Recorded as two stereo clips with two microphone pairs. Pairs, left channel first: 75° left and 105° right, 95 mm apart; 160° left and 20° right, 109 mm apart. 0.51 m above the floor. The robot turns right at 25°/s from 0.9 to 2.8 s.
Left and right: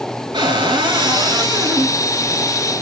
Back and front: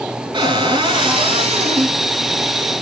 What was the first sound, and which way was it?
A cupboard door, 70° right.